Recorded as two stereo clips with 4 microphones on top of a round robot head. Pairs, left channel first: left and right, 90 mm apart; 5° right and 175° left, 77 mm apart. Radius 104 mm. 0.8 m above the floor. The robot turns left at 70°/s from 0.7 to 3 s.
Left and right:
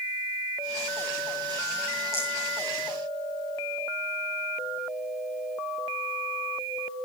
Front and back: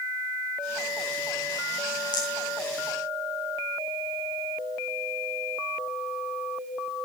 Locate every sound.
2.1 s a rattle: 25° left, 5.5 m; by 2.3 s 10° left, 5.5 m